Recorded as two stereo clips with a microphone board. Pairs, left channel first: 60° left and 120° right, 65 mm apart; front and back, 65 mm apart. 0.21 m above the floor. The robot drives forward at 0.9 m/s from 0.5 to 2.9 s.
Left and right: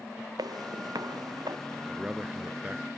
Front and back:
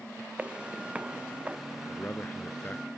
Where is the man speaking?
45° right; by 2.9 s 60° right.